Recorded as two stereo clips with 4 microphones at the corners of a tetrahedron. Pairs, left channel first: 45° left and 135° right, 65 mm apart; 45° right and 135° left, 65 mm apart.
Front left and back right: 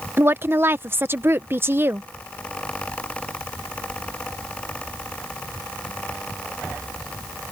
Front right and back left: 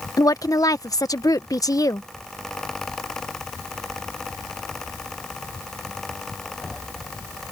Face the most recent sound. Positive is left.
turn(degrees=-75)